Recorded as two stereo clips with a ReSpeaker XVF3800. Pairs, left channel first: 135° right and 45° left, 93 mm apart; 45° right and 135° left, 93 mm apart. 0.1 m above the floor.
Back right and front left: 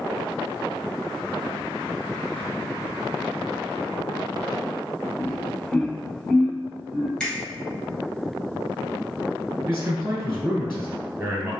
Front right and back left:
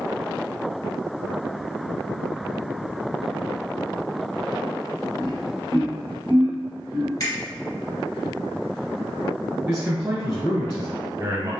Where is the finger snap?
55° right, 1.8 m.